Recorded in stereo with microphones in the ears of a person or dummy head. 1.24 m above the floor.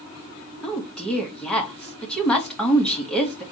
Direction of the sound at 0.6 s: Centre (ahead or behind).